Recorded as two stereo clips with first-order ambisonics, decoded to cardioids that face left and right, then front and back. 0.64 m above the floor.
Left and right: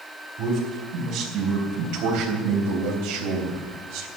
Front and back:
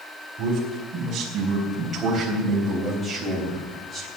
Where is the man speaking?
125° right, 4 m; by 4.1 s 75° right, 4 m.